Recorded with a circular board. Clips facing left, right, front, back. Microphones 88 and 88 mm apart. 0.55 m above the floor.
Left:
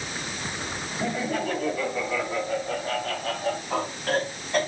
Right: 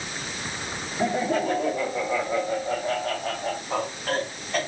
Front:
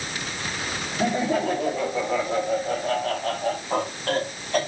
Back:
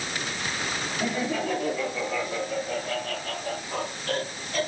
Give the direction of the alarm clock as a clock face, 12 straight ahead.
I don't hear an alarm clock.